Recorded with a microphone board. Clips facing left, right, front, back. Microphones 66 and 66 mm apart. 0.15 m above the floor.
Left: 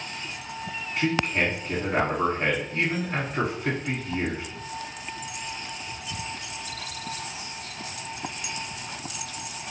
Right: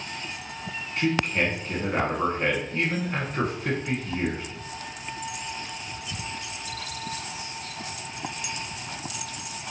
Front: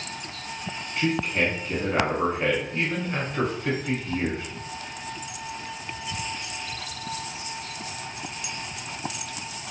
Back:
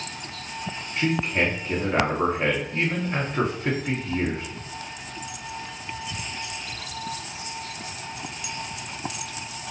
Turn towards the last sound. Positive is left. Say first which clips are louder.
# even, back 1 dB
turn(degrees=165)